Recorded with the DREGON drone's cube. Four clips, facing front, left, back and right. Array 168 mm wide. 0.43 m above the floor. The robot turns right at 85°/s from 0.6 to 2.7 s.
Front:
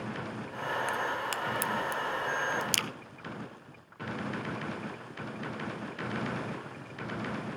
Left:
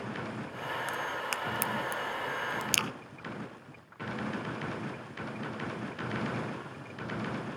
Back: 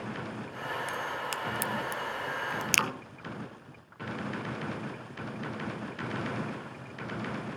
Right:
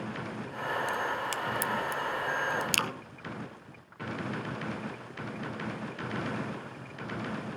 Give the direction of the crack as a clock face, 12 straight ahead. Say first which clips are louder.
Right 3 dB, front 2 dB; 11 o'clock.